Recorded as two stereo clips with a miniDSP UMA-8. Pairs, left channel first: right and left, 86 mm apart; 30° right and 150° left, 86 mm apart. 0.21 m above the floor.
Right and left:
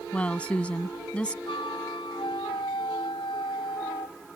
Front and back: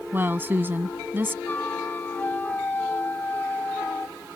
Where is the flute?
95° right.